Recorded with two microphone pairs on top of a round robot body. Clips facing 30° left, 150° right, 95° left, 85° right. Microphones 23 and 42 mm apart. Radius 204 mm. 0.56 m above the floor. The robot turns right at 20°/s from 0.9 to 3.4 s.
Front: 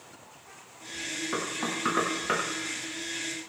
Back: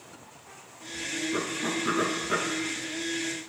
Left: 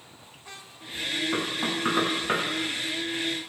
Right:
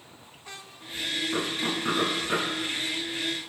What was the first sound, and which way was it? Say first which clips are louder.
Knocking: back 1 dB, left 1 dB; 35° left.